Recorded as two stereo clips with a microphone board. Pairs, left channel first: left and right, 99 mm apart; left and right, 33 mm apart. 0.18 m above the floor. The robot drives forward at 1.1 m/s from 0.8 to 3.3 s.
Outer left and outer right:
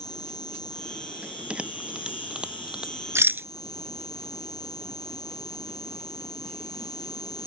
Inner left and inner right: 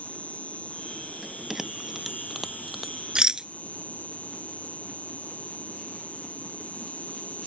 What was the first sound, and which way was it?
An insect, 45° left (ahead or behind).